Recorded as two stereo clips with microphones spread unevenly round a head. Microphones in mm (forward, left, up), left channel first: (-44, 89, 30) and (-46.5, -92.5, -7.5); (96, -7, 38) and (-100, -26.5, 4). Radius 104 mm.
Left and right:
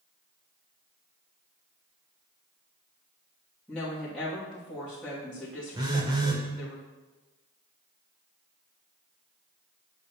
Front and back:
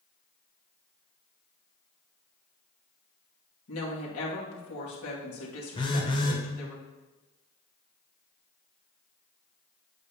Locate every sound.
3.7 s a woman speaking: 5° left, 2 m
5.8 s a phone buzzing: 15° right, 1.0 m